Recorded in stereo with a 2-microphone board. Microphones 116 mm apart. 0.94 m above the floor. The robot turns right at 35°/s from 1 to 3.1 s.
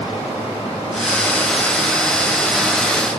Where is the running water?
55° left, 2.5 m; by 3.2 s 130° left, 2.5 m.